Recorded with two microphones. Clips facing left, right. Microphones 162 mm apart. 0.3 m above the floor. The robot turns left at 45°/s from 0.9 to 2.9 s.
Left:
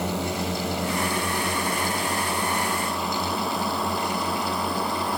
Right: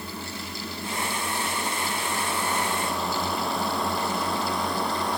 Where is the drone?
80° left; by 5.2 s 5° left (ahead or behind).